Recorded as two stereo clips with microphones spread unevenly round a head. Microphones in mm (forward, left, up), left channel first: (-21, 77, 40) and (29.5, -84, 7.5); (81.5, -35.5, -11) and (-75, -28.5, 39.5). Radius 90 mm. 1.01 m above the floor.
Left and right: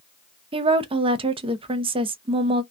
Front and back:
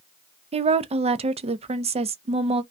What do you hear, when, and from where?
0.5 s a woman speaking: 125° right, 0.6 m